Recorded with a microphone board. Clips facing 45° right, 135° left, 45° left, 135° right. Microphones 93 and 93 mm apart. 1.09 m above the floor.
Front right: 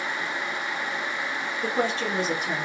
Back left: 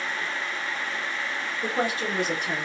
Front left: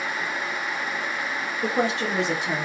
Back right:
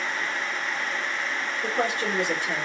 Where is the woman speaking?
60° left, 1.2 m; by 2.7 s 35° left, 1.5 m.